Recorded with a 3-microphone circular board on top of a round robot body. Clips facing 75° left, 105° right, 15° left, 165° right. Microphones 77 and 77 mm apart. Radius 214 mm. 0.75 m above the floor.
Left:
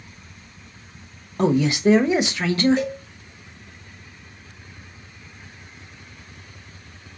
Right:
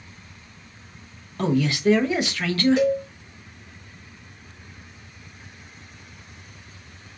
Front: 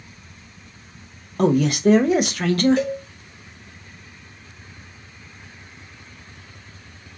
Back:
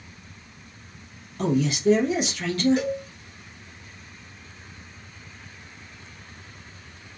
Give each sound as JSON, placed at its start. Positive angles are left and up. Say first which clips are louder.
{"t": 1.4, "sound": "a man speaking", "louder": "left 3 dB, front 5 dB", "azimuth_deg": 5, "distance_m": 0.9}
{"t": 2.8, "sound": "a cowbell", "louder": "right 6 dB, front 3 dB", "azimuth_deg": -80, "distance_m": 3.0}